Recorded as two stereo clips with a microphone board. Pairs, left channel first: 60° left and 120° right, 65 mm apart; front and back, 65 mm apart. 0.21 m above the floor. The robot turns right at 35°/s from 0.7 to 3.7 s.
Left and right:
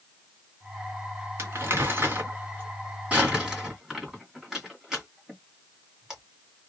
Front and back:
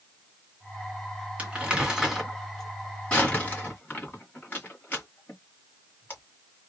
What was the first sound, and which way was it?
Crumpling, 125° right.